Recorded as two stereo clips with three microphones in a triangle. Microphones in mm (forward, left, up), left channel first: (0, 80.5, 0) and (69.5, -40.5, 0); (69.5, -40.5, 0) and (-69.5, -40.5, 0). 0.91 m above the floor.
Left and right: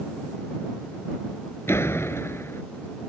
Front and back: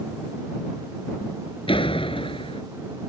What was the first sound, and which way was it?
A door slam, 50° left.